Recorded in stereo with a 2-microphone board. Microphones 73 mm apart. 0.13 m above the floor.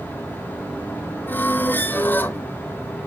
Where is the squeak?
30° left (ahead or behind), 0.7 m.